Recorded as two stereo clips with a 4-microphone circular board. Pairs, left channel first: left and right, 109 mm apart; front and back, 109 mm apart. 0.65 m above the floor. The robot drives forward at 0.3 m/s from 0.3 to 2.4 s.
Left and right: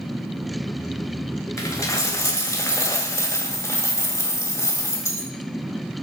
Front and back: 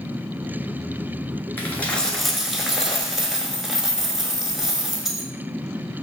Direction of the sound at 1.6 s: 55° left.